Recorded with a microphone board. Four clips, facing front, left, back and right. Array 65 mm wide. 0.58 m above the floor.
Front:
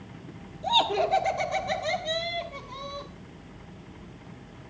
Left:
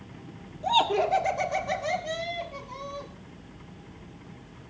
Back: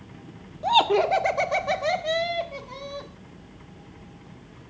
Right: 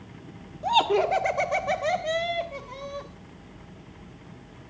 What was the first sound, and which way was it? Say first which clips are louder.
Laughter: right 2 dB, back 5 dB; 150° right.